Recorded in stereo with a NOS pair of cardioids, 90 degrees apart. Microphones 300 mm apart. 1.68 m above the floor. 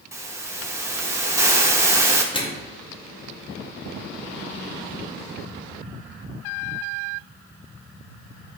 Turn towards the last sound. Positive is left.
turn(degrees=20)